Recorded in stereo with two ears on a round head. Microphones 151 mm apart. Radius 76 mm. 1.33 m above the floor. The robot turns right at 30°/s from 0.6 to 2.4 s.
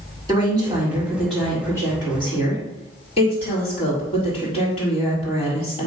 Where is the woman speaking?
20° right, 3.5 m; by 5.9 s 35° left, 3.5 m.